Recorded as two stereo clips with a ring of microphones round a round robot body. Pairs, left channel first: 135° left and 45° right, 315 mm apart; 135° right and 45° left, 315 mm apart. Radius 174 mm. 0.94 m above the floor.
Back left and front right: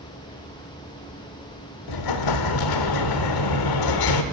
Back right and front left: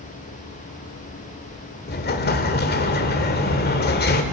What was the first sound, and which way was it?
An explosion, 160° left.